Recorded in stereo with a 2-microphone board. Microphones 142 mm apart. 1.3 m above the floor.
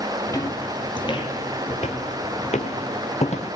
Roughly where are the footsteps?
Left.